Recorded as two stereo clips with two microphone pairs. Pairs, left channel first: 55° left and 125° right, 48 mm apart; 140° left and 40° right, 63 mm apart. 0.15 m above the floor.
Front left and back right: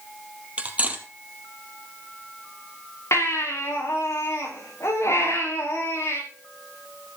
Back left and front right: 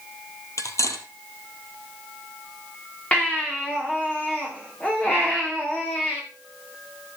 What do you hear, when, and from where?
0.6 s cutlery clinking: 175° left, 2 m
3.1 s a baby crying: 70° left, 6 m